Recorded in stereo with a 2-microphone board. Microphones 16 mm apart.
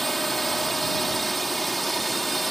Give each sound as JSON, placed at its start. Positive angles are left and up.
{"t": 0.0, "sound": "a drone", "side_deg": 5}